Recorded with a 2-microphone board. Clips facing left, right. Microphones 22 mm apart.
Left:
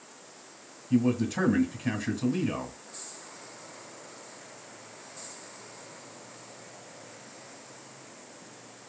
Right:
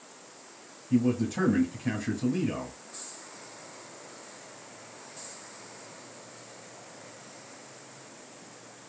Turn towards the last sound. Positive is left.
turn(degrees=35)  # may be behind; listen again after turning